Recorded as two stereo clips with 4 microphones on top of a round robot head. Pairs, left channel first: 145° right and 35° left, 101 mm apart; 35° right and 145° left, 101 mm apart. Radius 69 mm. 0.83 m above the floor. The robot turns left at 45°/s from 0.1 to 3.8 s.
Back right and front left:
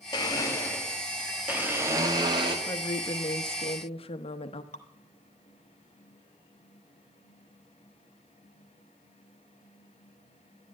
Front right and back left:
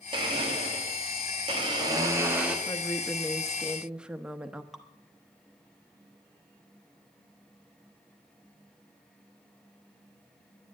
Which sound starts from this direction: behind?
A blender, at 0.1 s.